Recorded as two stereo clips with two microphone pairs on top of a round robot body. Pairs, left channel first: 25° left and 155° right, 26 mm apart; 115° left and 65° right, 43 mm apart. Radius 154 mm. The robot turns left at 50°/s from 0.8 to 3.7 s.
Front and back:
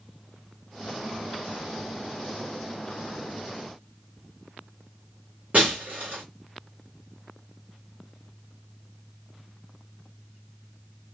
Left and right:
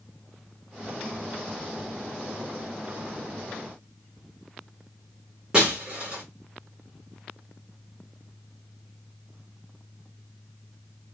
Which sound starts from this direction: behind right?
Breaking glass, at 5.5 s.